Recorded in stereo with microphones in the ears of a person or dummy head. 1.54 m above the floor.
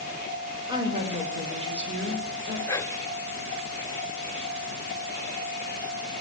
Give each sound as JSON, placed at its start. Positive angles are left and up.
{"t": 0.7, "sound": "a woman speaking", "side_deg": -20, "distance_m": 4.0}
{"t": 2.7, "sound": "whispering", "side_deg": 10, "distance_m": 0.6}